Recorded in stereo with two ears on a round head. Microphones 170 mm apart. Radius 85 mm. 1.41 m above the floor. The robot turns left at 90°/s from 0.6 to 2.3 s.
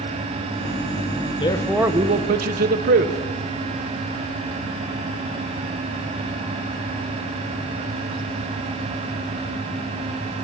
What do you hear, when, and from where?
1.4 s a man speaking: 30° left, 1.3 m; by 3.2 s 50° right, 1.3 m